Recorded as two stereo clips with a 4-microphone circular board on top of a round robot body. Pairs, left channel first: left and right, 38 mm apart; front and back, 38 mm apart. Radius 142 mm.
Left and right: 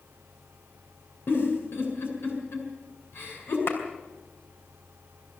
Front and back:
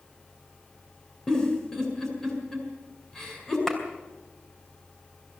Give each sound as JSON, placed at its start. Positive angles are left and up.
{"t": 1.3, "sound": "a giggle", "azimuth_deg": 70, "distance_m": 7.0}
{"t": 3.7, "sound": "a clap", "azimuth_deg": 75, "distance_m": 4.5}